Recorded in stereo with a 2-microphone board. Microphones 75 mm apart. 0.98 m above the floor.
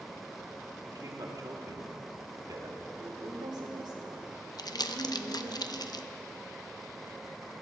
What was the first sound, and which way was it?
A man speaking, 55° right (ahead or behind).